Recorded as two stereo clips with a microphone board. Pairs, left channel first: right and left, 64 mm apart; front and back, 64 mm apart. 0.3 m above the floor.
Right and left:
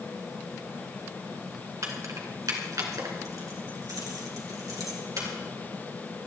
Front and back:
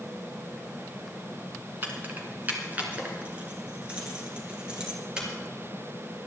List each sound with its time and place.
1.8 s keys jangling: 125° left, 2.5 m; by 5.3 s 105° left, 4 m